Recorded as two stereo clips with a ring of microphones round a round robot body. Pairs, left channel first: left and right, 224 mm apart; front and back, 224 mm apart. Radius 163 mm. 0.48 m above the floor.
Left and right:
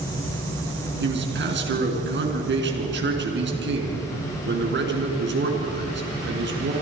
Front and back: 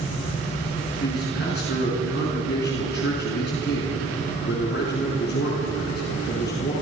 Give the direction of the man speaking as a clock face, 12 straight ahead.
2 o'clock.